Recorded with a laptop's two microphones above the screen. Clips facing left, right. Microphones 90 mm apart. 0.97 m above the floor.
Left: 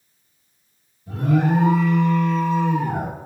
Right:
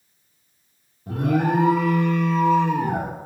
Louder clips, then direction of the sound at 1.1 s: Left 1 dB; 60° right (ahead or behind).